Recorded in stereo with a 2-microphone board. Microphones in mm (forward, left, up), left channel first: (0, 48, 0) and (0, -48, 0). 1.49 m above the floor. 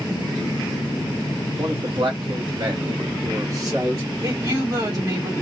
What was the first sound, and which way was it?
A man speaking, 75° right (ahead or behind).